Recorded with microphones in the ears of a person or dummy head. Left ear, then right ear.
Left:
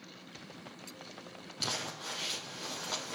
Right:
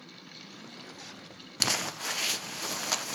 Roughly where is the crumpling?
Right.